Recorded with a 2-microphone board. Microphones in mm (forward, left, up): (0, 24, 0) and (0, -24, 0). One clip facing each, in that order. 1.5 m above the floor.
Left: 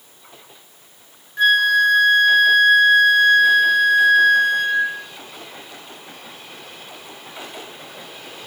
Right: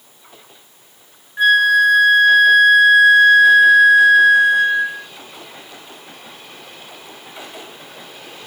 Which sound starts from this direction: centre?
A flute, at 1.4 s.